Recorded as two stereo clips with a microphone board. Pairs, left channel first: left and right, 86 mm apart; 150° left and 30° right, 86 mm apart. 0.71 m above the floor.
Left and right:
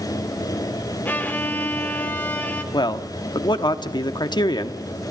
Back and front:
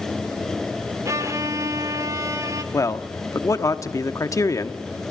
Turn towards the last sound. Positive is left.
turn(degrees=105)